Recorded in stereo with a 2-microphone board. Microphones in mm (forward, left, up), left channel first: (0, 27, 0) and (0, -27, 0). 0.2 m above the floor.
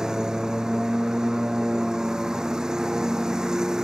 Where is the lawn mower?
15° right (ahead or behind).